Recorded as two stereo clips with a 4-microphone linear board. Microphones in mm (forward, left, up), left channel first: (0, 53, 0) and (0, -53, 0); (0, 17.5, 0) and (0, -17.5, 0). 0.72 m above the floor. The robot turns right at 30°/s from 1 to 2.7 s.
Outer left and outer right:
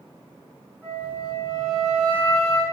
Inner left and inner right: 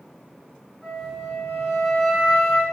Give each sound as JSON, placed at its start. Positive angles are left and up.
{"t": 0.8, "sound": "a flute", "azimuth_deg": -5, "distance_m": 1.1}